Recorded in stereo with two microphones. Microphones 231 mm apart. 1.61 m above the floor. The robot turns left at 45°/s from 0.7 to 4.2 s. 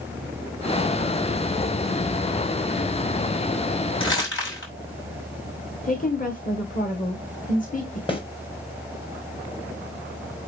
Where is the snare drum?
20° left (ahead or behind), 1.7 m.